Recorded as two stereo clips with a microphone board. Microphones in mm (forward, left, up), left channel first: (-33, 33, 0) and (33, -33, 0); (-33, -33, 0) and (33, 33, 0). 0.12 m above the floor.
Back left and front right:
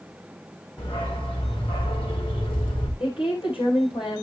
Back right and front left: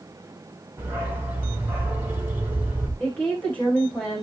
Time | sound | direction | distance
0.8 | a dog barking | 115° left | 5.5 m
3.0 | a woman speaking | 150° left | 8.5 m